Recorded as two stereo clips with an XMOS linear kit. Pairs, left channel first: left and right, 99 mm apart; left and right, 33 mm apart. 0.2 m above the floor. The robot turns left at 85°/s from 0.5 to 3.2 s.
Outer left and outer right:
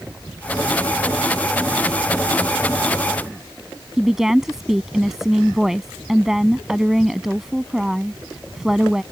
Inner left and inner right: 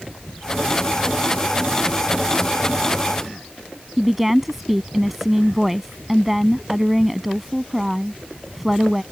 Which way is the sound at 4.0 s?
5° right (ahead or behind).